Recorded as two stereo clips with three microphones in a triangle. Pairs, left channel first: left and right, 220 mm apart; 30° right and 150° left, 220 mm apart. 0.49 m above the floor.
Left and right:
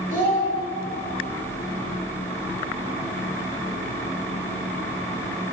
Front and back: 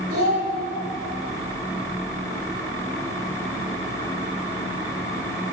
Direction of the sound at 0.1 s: 145° left.